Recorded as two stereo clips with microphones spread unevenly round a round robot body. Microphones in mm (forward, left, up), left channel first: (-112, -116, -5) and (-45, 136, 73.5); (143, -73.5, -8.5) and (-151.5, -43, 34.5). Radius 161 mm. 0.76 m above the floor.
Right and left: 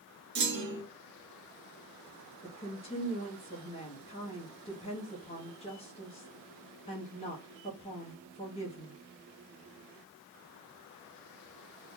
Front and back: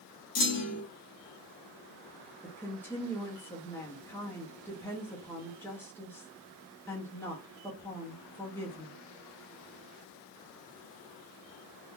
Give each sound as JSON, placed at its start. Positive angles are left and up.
{"t": 0.3, "sound": "a clunk", "azimuth_deg": 20, "distance_m": 0.9}
{"t": 2.4, "sound": "a woman speaking", "azimuth_deg": -75, "distance_m": 0.9}